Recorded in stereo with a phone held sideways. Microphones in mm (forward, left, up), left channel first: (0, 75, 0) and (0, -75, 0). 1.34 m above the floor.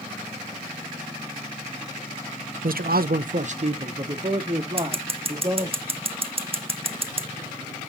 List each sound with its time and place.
2.6 s a man speaking: 65° right (ahead or behind), 0.5 m; by 5.8 s 25° right (ahead or behind), 2.5 m
4.8 s scissors: 40° right (ahead or behind), 0.9 m